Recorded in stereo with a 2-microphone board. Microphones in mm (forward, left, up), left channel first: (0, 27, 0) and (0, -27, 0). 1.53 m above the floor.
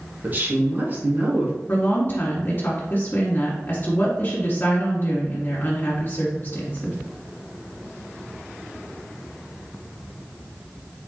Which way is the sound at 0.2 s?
35° right (ahead or behind).